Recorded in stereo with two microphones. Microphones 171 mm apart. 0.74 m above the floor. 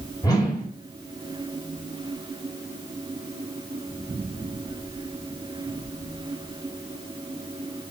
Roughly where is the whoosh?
Left.